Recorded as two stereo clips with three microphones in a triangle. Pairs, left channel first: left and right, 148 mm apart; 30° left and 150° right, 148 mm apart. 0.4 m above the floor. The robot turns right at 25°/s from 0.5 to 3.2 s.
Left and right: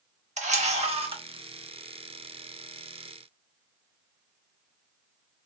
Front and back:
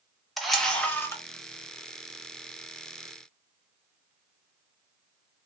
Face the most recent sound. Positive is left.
turn(degrees=10)